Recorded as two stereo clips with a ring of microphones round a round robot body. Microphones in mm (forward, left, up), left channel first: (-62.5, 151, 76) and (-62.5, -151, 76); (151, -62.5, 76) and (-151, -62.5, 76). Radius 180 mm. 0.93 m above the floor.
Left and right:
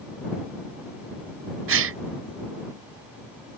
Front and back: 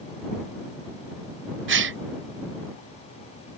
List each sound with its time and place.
1.7 s a gasp: 135° right